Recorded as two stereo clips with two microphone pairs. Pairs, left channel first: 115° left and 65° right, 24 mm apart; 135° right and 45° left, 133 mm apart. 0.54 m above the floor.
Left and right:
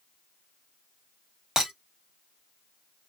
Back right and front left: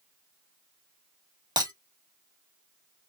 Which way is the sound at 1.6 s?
10° right.